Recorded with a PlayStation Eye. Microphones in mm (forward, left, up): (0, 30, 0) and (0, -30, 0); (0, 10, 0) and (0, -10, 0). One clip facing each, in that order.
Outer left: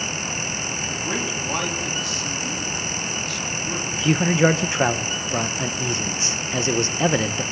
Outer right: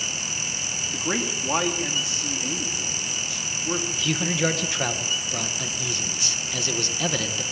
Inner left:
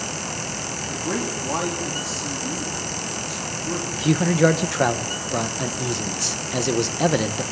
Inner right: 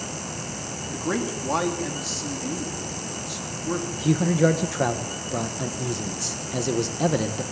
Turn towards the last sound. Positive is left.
turn(degrees=30)  # may be behind; listen again after turning